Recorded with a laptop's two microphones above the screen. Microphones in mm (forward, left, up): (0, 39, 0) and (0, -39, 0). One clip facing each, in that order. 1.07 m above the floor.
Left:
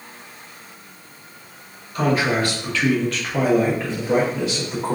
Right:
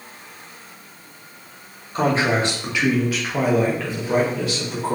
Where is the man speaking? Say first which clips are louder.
Even; 25° right (ahead or behind), 0.8 m; by 5.0 s 20° left (ahead or behind), 1.3 m.